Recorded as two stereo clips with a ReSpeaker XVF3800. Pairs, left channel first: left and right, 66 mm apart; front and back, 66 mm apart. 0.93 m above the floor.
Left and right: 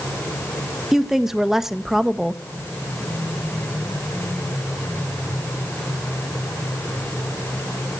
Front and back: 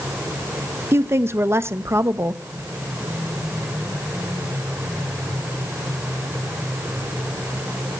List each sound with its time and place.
0.9 s a woman speaking: 170° right, 1.1 m